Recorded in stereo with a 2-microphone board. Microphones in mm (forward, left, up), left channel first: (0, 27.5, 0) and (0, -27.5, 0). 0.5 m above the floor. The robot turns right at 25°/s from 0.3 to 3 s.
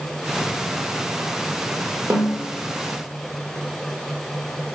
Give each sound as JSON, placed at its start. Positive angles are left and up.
{"t": 2.1, "sound": "a snare drum", "side_deg": -55, "distance_m": 0.8}